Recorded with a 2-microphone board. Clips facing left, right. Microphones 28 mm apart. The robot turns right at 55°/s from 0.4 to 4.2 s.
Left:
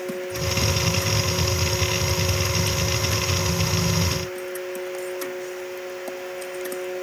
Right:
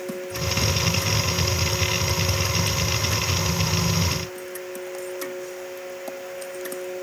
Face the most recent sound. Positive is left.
No sound to turn to.